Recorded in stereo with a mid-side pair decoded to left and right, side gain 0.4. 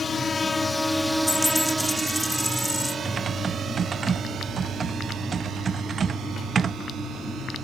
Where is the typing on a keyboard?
50° right.